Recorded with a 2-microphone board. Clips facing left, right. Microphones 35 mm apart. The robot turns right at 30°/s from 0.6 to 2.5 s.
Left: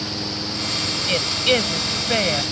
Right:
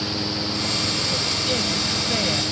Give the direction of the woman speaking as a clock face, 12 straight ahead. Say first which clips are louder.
Left 5 dB; 8 o'clock.